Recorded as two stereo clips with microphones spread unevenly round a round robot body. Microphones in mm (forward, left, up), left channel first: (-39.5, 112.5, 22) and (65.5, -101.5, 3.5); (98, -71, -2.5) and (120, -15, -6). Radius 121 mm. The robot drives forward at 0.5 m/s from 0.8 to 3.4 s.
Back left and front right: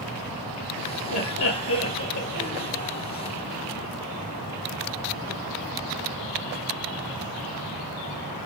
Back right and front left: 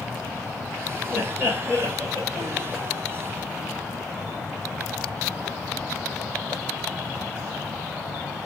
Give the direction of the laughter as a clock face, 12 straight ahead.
7 o'clock.